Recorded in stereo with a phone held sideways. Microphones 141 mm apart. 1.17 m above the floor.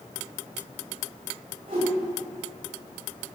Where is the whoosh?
75° right (ahead or behind), 3 m.